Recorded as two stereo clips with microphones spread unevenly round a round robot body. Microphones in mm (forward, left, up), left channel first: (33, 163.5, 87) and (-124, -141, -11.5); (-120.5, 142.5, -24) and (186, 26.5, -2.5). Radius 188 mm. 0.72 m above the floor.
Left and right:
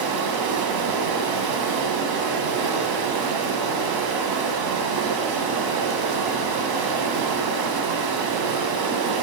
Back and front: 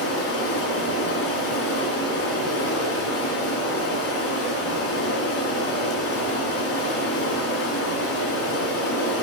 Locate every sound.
0.0 s running water: 135° right, 2.5 m